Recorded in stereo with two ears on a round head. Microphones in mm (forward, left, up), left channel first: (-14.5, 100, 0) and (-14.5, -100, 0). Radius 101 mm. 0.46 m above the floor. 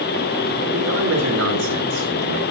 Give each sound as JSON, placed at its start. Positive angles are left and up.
{"t": 0.7, "sound": "a man speaking", "side_deg": -70, "distance_m": 6.5}